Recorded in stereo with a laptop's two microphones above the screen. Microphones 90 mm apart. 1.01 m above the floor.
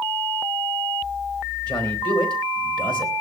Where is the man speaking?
55° left (ahead or behind), 3.5 m.